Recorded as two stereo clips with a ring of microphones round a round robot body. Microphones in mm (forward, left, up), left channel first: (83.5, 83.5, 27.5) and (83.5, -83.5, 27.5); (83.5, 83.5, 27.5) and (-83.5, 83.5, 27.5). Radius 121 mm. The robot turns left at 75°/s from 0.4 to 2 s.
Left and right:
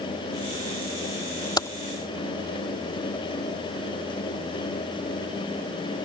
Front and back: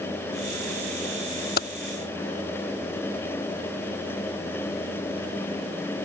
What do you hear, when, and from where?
1.6 s typing on a keyboard: 25° left; by 1.7 s 15° left